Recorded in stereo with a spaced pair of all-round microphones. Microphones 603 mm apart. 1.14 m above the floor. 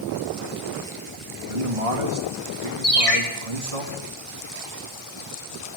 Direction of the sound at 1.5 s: 70° right (ahead or behind).